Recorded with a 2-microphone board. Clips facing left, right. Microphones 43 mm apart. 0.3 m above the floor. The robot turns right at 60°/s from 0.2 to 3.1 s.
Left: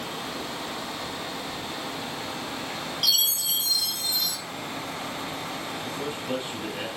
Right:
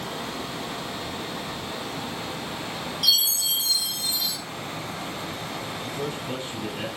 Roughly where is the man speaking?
Left.